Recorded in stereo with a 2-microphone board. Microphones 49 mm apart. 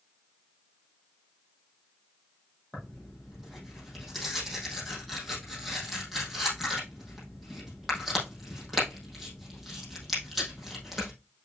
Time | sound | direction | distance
2.7 | tearing paper | centre (ahead or behind) | 4.5 m